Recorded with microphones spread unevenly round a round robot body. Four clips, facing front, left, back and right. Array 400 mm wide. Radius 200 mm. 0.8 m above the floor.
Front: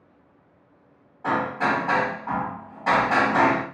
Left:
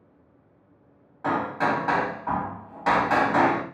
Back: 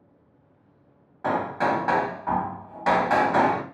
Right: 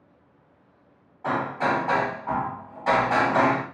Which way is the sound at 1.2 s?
140° left.